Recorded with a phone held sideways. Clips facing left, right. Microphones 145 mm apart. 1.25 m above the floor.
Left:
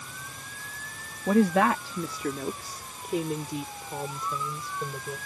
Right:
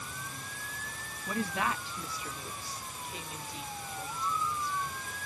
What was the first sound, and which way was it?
A woman speaking, 70° left (ahead or behind).